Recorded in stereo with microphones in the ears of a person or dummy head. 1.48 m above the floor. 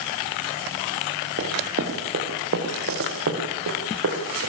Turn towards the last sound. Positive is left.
turn(degrees=-75)  # may be behind; listen again after turning